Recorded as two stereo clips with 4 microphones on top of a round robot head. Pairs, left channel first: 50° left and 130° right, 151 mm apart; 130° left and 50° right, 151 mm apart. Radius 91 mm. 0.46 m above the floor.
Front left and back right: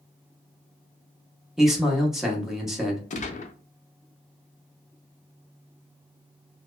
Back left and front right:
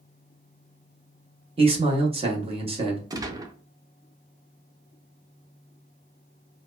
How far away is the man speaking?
About 0.9 m.